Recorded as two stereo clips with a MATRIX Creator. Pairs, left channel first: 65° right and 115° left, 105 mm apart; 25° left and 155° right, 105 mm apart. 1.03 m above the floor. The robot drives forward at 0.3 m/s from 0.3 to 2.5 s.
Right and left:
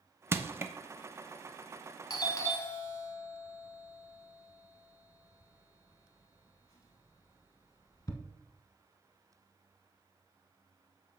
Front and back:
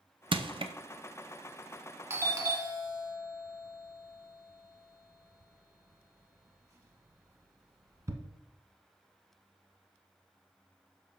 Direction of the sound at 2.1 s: 105° right.